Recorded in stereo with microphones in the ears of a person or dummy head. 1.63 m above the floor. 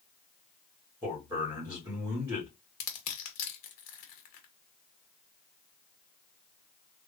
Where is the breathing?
I don't hear breathing.